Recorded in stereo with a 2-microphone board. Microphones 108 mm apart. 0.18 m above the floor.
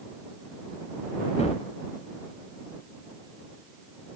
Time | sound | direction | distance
1.4 | a gunshot | 70° left (ahead or behind) | ?